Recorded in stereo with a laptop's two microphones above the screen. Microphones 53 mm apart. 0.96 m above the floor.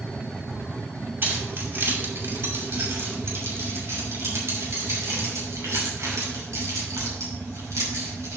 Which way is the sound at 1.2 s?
40° right (ahead or behind).